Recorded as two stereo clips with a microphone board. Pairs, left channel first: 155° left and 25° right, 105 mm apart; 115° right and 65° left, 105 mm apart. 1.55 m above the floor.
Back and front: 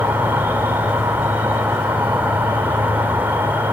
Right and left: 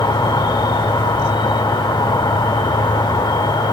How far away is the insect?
About 1.8 m.